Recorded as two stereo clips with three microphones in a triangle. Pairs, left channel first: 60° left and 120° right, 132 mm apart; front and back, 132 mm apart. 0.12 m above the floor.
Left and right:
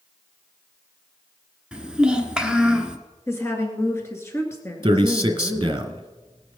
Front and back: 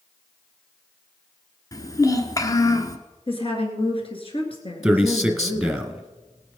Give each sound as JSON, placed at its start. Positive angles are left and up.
{"t": 1.7, "sound": "a child speaking", "azimuth_deg": -40, "distance_m": 1.5}
{"t": 3.3, "sound": "a woman speaking", "azimuth_deg": 0, "distance_m": 2.0}
{"t": 4.8, "sound": "a man speaking", "azimuth_deg": -95, "distance_m": 1.5}